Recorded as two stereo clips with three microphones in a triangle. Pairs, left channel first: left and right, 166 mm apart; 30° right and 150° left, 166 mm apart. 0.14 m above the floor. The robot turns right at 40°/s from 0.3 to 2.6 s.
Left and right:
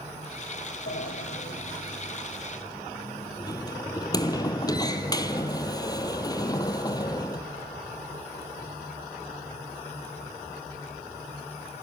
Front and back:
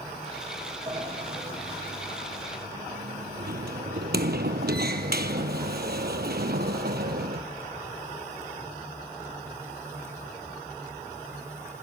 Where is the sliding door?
85° left, 1.2 m; by 7.4 s 155° left, 1.2 m.